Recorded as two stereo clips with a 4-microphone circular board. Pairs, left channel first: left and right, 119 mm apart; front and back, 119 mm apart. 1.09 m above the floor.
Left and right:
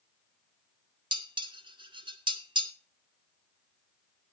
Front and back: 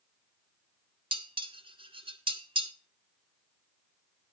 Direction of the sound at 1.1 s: 135° right.